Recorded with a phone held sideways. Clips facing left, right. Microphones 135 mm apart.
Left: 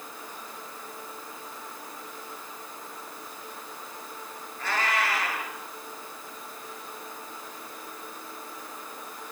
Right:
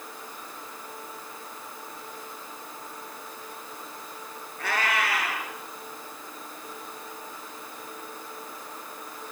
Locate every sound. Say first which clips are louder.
4.6 s a cat meowing: even; 65° right (ahead or behind), 8 m